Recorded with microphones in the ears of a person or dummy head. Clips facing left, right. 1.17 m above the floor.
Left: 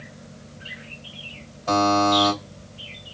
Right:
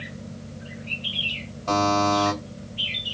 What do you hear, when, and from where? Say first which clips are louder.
1.7 s a buzzer: left 2 dB; 15° left (ahead or behind), 3 m